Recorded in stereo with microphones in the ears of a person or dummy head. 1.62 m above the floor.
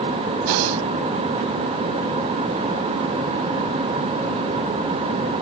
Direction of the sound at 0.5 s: 65° right (ahead or behind).